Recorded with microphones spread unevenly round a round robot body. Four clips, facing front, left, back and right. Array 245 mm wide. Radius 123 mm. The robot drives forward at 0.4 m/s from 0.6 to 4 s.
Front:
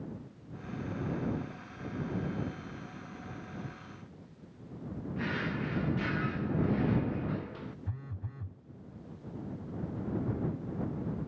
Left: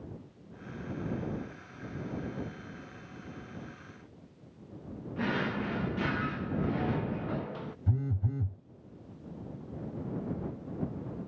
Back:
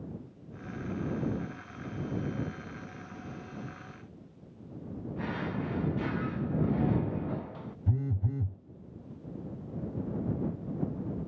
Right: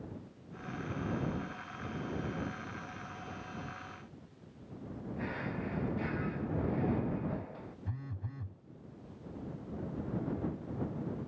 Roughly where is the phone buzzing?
Behind left.